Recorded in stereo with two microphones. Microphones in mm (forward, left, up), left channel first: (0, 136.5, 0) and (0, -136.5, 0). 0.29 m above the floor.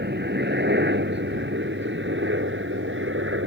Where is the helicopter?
40° right (ahead or behind); by 3.5 s 45° right (ahead or behind).